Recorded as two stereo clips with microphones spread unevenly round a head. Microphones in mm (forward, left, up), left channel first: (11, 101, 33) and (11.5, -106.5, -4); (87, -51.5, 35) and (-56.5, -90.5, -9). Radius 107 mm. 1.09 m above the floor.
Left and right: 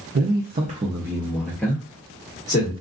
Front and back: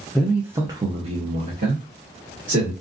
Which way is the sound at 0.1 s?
85° right.